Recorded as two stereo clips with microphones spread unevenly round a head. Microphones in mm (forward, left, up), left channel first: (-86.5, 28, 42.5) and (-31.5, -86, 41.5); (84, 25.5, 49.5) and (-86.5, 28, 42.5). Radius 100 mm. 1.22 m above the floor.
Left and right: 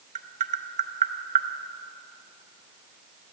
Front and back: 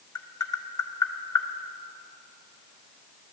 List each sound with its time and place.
0.1 s tapping: 70° right, 0.7 m